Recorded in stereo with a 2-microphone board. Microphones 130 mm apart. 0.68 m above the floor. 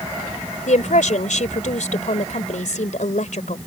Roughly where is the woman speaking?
Left.